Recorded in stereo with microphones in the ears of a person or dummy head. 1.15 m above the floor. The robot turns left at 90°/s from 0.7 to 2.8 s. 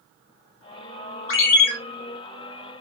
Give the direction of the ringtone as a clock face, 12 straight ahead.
10 o'clock.